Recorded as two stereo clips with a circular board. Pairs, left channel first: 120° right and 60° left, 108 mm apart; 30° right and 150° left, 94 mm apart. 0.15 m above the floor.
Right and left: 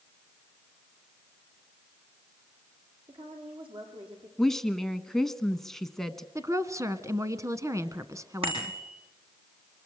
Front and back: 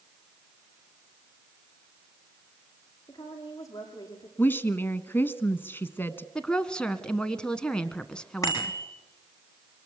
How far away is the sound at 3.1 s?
About 7 m.